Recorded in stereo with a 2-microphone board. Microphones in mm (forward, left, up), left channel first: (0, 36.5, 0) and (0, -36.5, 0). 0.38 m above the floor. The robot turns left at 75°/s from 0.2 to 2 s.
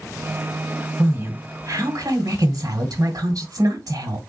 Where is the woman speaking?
30° right, 1.4 m; by 4.2 s 105° right, 1.4 m.